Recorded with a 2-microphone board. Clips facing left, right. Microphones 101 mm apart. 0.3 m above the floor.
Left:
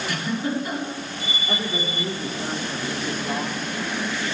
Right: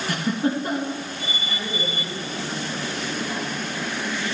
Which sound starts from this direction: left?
A woman speaking, at 1.5 s.